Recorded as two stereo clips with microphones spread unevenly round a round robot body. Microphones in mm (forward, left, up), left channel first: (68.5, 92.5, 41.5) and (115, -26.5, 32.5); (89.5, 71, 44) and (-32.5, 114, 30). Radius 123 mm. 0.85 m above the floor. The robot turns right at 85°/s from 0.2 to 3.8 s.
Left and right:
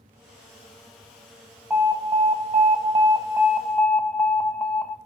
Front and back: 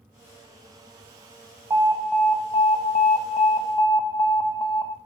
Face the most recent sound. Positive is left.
turn(degrees=35)